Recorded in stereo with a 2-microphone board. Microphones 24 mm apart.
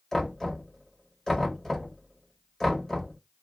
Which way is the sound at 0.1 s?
15° left (ahead or behind).